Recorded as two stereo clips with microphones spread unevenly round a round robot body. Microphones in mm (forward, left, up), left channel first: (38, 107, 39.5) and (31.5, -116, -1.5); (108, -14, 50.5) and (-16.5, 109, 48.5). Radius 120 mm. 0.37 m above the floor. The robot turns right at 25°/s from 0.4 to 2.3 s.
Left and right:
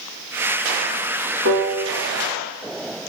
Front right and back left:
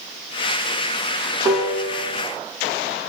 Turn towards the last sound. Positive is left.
turn(degrees=-120)